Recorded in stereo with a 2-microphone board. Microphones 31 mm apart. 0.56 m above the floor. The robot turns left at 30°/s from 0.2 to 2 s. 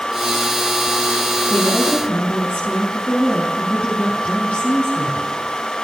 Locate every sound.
1.5 s a woman speaking: 55° left (ahead or behind), 5 m; by 5.3 s 40° left (ahead or behind), 5 m